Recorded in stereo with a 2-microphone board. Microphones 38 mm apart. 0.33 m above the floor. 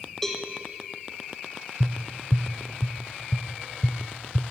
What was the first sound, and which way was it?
A cowbell, 5° left (ahead or behind).